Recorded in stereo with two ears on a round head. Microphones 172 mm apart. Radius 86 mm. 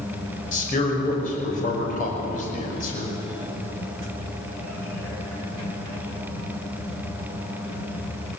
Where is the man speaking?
45° left (ahead or behind), 5.5 m.